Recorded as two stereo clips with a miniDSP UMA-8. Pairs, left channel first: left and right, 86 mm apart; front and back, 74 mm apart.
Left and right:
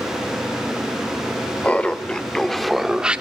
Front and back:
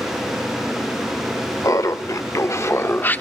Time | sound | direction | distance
1.6 | laughter | 20° left | 1.3 m